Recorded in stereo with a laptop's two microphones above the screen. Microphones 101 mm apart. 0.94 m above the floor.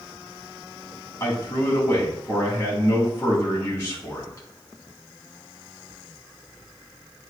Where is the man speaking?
35° left (ahead or behind), 1.8 m.